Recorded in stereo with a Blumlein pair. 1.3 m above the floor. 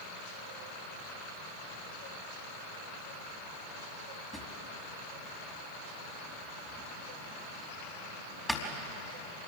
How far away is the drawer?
About 4.5 m.